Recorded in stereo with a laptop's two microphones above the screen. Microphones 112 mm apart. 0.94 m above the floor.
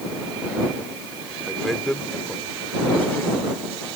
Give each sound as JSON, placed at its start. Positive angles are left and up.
{"t": 1.5, "sound": "a man speaking", "side_deg": 0}